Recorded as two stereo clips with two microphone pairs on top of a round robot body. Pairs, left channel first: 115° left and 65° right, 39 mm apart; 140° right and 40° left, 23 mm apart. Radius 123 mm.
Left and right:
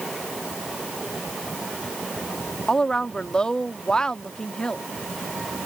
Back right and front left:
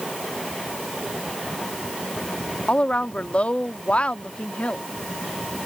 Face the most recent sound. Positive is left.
turn(degrees=-175)